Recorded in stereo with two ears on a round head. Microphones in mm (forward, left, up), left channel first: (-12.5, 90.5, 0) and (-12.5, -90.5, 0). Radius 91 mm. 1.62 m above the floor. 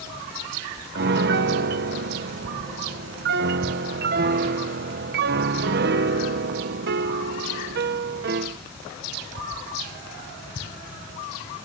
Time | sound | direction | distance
0.9 | a piano | 55° right (ahead or behind) | ?